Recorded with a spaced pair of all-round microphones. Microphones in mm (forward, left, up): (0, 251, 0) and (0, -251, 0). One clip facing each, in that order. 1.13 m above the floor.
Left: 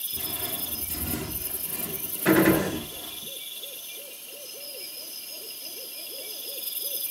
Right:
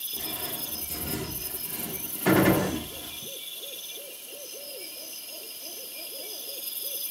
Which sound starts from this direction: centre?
A gunshot, at 2.2 s.